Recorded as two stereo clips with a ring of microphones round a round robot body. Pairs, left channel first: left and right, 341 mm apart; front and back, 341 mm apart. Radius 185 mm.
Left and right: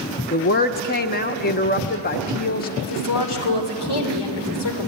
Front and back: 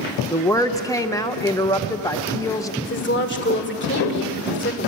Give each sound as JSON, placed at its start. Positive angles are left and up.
{"t": 0.3, "sound": "a woman speaking", "azimuth_deg": 70, "distance_m": 0.9}
{"t": 2.8, "sound": "a woman speaking", "azimuth_deg": 60, "distance_m": 2.5}